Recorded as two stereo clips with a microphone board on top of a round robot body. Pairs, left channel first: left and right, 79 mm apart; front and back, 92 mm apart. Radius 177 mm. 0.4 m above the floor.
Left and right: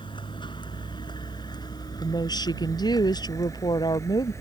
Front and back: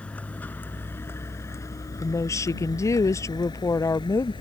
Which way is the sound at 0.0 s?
75° left.